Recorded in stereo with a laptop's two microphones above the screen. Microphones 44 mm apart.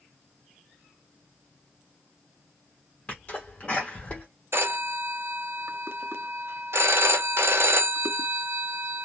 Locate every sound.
3.1 s a sneeze: 25° left (ahead or behind), 1.1 m
4.5 s a phone ringing: 65° right (ahead or behind), 0.5 m